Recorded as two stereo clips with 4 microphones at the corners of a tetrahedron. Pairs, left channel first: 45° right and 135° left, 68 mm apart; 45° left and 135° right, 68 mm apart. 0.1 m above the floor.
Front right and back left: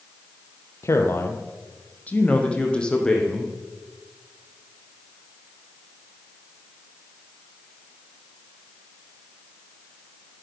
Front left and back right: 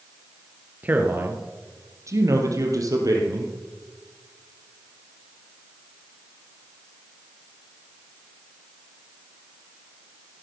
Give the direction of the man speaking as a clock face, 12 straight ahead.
2 o'clock.